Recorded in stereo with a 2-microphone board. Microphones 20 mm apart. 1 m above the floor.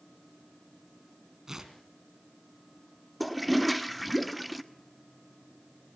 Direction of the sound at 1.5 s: 20° right (ahead or behind).